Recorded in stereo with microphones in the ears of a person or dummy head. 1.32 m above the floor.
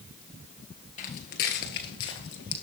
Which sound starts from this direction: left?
Footsteps, at 1.0 s.